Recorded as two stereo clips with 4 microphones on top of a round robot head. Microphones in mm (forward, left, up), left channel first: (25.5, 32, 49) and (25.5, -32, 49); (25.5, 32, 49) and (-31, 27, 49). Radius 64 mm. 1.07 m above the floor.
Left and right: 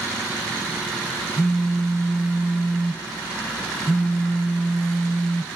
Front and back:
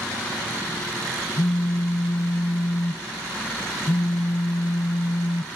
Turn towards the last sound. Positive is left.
turn(degrees=5)